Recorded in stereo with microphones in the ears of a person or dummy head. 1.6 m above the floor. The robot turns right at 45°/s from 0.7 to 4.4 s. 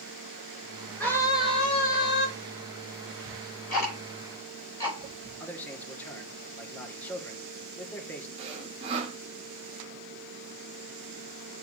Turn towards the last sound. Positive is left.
turn(degrees=-40)  # may be behind; listen again after turning